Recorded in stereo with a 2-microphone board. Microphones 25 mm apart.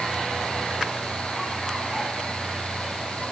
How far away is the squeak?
I don't hear a squeak.